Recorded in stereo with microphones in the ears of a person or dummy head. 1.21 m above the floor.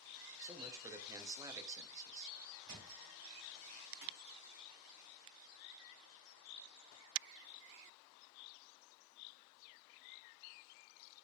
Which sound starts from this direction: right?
A thud, at 2.7 s.